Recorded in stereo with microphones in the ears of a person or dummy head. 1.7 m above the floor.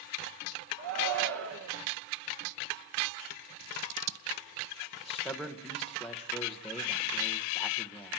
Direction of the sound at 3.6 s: 75° right (ahead or behind).